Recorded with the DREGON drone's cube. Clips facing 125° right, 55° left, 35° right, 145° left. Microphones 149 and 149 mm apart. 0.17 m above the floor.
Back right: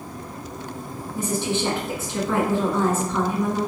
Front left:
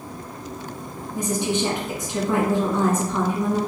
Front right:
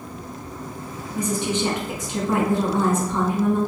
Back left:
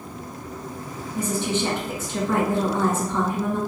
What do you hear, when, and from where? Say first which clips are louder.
1.1 s a woman speaking: front left 1 dB, front right 1 dB; 10° left, 1.1 m